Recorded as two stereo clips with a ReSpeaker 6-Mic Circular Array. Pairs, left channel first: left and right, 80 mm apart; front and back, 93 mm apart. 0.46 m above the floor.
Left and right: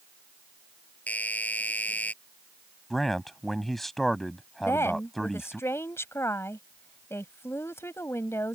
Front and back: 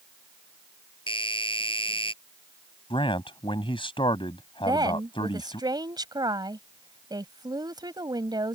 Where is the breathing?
I don't hear breathing.